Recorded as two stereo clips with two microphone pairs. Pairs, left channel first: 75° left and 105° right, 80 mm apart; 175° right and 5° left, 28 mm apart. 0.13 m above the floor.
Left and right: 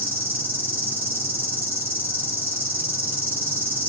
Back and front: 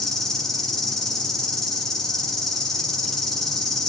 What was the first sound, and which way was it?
An insect, 130° right.